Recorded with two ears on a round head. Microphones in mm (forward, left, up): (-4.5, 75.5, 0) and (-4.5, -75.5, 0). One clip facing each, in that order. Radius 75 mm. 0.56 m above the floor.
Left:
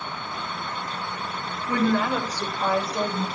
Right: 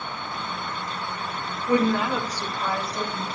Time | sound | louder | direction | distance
1.7 | a woman speaking | right 1 dB | 25° right (ahead or behind) | 1.4 m